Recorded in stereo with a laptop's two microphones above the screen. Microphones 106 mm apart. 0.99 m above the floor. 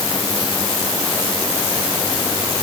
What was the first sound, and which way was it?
Only background noise.